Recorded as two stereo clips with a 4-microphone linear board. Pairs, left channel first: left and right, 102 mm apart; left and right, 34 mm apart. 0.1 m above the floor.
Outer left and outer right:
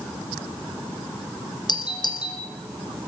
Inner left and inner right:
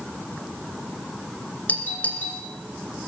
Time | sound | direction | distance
1.7 | a doorbell | 45° left (ahead or behind) | 5 m